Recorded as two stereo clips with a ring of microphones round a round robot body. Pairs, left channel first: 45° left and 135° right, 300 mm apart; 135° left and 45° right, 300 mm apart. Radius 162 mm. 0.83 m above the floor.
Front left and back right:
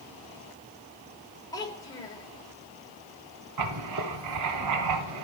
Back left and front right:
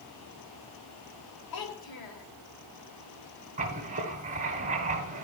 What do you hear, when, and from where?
1.5 s a child speaking: 125° left, 2 m
3.6 s writing: 110° right, 1.4 m